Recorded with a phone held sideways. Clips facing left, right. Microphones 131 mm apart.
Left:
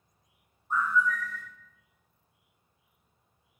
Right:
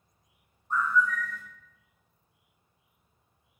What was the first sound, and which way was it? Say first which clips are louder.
A bird: right 1 dB; 5° left (ahead or behind).